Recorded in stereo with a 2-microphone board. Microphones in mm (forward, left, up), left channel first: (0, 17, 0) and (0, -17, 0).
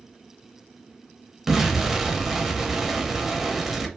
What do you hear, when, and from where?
1.5 s an explosion: 5° right (ahead or behind), 0.6 m